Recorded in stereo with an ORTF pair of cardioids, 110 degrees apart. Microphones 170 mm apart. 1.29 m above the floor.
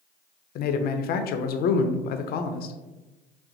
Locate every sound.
0.6 s a man speaking: 65° left, 0.6 m